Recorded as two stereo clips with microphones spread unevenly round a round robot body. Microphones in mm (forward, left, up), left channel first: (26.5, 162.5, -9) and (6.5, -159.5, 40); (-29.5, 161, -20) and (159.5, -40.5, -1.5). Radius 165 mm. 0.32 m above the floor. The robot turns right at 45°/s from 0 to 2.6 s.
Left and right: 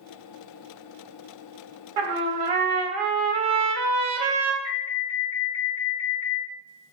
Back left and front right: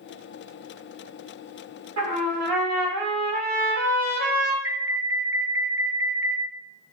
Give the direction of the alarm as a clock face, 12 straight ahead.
11 o'clock.